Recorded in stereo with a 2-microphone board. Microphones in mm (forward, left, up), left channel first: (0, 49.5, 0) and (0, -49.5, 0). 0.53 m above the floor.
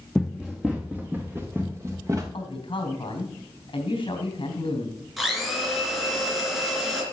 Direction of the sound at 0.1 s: Centre (ahead or behind).